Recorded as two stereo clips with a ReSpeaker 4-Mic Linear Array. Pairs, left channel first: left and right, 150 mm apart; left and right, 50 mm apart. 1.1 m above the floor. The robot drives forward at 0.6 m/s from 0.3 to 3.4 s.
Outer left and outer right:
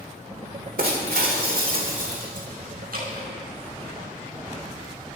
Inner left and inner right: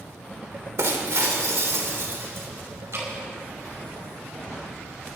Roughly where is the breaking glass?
Right.